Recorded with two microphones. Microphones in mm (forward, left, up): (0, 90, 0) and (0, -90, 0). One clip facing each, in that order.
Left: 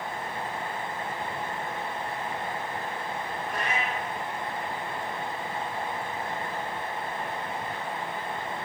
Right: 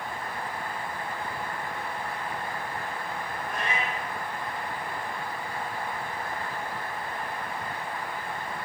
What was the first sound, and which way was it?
A cat meowing, 5° left (ahead or behind).